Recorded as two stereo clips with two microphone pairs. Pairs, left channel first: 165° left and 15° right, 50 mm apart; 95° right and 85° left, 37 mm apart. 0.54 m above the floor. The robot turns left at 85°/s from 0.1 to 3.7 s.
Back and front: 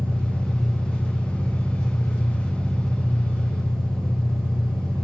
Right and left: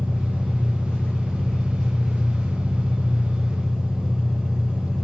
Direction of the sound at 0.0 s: 55° right.